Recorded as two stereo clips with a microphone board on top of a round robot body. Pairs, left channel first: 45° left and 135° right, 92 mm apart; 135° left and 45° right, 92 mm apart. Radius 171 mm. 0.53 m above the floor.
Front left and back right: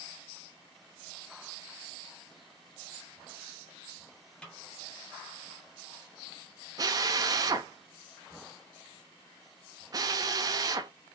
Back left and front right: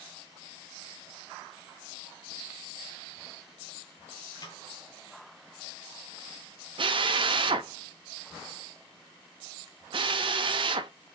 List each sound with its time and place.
4.4 s a snare drum: 120° left, 1.6 m
6.8 s a drill: 80° right, 0.5 m